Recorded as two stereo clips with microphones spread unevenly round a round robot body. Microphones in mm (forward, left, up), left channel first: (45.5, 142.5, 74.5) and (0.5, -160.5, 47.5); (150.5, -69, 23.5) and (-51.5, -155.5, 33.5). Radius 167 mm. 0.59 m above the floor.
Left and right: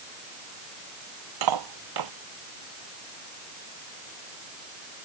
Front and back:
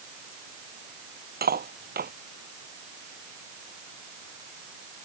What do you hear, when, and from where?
1.4 s cutlery clinking: 110° right